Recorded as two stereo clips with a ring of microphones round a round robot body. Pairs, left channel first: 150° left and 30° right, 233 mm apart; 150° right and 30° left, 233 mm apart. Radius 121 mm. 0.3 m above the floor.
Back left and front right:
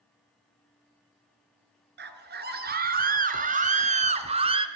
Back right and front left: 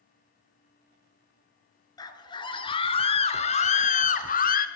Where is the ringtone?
I don't hear a ringtone.